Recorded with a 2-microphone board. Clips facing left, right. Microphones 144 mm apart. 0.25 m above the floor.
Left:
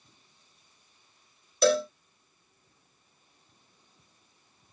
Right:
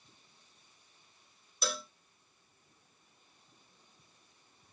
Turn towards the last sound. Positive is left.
turn(degrees=85)